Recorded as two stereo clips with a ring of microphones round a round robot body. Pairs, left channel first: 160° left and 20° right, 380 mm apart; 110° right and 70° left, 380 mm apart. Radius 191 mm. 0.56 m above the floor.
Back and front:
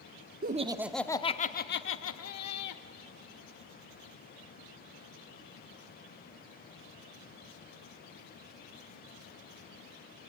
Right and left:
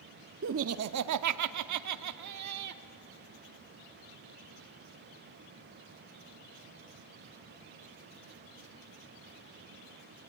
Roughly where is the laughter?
Ahead left.